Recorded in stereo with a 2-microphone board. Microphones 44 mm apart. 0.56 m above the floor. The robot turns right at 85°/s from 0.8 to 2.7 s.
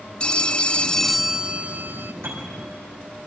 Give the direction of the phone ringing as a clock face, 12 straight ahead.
7 o'clock.